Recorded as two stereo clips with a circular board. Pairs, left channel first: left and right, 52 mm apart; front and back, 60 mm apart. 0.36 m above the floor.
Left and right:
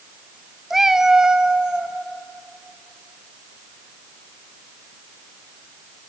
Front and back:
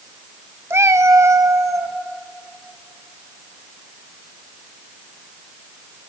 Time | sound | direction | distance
0.7 | a cat meowing | 175° right | 0.7 m